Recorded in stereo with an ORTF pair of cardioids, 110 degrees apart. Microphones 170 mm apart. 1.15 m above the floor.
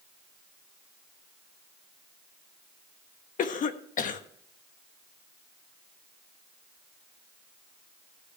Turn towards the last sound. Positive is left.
turn(degrees=50)